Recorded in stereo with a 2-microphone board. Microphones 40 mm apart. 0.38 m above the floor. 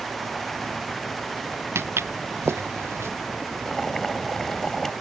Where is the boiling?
10° left (ahead or behind).